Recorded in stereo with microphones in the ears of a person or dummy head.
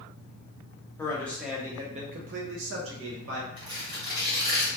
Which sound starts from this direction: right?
Tearing paper, at 3.6 s.